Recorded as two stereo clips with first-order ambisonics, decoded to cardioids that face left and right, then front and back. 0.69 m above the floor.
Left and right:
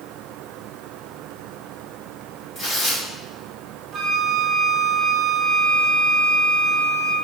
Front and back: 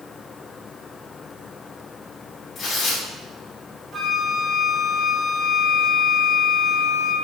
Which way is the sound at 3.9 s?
130° right.